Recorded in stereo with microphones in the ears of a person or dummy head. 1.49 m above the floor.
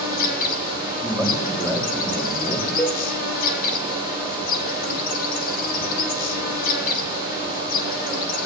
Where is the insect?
55° left (ahead or behind), 7.5 m.